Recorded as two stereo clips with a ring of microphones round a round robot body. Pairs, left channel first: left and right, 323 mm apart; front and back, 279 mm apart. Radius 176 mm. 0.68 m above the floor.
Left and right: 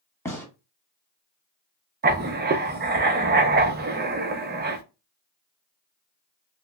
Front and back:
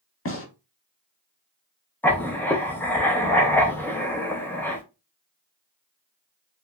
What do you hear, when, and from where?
0.2 s a gunshot: 10° left, 1.4 m
2.0 s writing: 75° right, 0.6 m